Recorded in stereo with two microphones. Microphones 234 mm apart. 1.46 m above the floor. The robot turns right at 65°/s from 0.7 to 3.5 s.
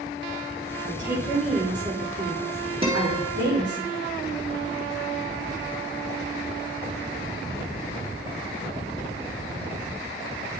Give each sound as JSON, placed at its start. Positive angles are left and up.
{"t": 0.8, "sound": "a woman speaking", "azimuth_deg": 140, "distance_m": 4.0}
{"t": 2.8, "sound": "a guitar", "azimuth_deg": -25, "distance_m": 2.0}